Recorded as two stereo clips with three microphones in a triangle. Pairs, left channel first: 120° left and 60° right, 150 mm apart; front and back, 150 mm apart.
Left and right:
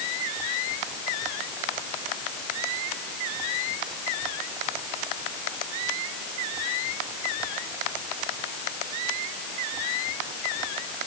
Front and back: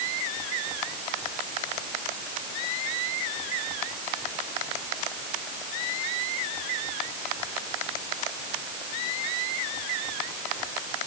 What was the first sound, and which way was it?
Only background noise.